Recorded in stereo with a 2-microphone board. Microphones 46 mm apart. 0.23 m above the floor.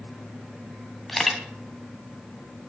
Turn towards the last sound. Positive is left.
turn(degrees=0)  # may be behind; listen again after turning